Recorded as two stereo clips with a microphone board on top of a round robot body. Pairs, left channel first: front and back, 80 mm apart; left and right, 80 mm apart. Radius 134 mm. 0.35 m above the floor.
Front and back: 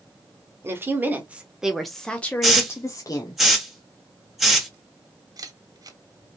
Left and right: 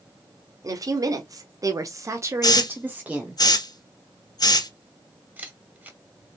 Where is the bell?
I don't hear a bell.